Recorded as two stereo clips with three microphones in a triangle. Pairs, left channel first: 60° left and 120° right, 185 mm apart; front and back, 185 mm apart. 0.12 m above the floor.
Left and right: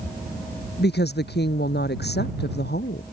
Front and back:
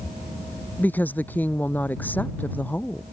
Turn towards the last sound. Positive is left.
turn(degrees=80)